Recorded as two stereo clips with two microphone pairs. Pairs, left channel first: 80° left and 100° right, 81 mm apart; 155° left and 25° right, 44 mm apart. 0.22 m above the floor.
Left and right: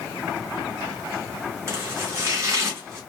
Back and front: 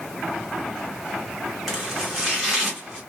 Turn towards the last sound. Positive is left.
turn(degrees=-120)